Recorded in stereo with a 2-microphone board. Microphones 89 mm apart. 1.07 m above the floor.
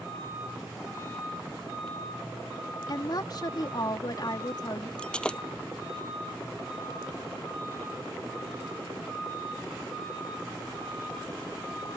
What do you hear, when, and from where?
2.9 s a woman speaking: 50° left (ahead or behind)
5.0 s breaking glass: 10° left (ahead or behind)